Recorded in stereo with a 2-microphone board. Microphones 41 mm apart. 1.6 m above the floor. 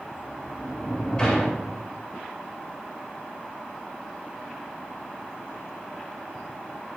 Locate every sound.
0.1 s a sliding door: 20° left (ahead or behind), 2.5 m